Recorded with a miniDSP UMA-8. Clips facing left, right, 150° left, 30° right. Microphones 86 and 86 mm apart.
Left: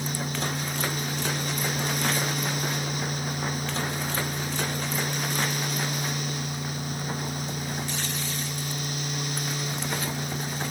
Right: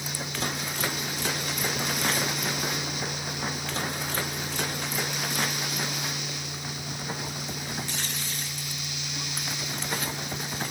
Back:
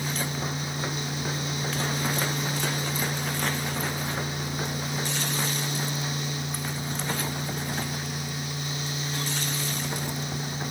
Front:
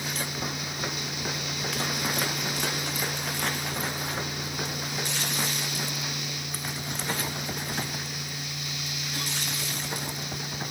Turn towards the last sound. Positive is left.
No sound to turn to.